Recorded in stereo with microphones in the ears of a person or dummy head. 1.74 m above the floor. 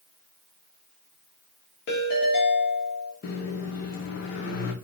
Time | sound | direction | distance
1.9 | a ringtone | 55° left (ahead or behind) | 1.7 m
3.2 | a microwave | 60° left (ahead or behind) | 0.9 m